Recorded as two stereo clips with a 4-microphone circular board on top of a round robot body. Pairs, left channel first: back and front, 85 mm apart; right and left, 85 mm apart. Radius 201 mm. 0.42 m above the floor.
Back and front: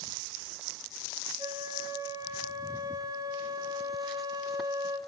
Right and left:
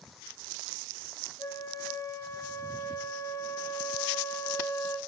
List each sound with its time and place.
1.4 s a flute: 45° right, 1.9 m